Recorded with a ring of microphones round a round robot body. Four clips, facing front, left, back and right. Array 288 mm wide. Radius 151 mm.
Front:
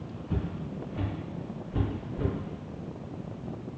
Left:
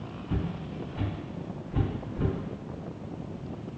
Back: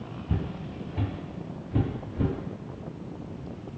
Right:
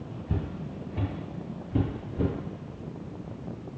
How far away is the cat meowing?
No cat meowing in this recording.